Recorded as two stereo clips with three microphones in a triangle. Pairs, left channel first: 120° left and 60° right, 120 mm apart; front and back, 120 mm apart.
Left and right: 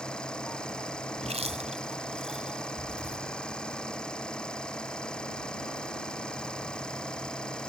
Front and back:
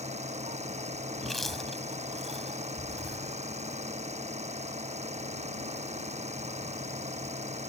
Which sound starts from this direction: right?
Chewing, at 1.2 s.